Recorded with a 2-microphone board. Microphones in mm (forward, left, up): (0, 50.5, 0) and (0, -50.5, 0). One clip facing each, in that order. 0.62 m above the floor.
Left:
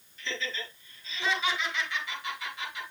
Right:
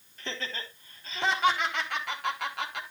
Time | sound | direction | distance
0.2 | laughter | 45° right (ahead or behind) | 4.5 m